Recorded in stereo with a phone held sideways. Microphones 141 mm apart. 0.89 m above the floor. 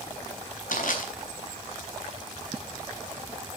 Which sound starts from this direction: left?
Crushing, at 0.7 s.